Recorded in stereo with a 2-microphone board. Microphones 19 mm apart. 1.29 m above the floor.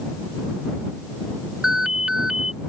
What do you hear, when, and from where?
1.6 s an alarm: 40° right (ahead or behind)